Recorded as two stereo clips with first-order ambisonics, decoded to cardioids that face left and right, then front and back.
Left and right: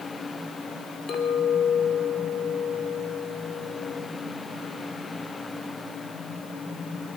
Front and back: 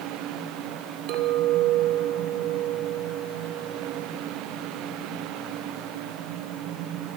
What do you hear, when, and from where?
1.1 s a clink: 150° left, 3 m